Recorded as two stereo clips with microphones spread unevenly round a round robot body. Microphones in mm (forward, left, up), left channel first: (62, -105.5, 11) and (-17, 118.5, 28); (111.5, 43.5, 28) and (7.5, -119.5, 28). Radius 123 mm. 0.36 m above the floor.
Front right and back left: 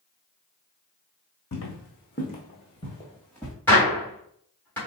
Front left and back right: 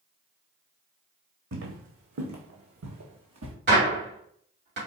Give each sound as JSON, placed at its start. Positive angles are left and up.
{"t": 1.5, "sound": "footsteps", "azimuth_deg": -110, "distance_m": 1.3}
{"t": 3.7, "sound": "a gunshot", "azimuth_deg": -150, "distance_m": 2.5}